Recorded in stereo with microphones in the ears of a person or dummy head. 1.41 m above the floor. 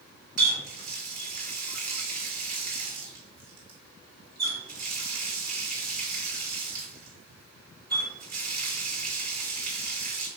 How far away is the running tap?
About 1.8 m.